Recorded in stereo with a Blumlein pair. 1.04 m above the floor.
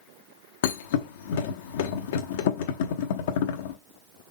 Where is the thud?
55° left, 0.9 m.